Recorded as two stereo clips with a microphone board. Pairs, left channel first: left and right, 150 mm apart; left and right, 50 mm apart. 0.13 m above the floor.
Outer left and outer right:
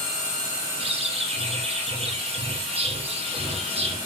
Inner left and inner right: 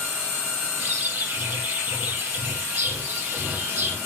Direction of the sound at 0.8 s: 40° right (ahead or behind).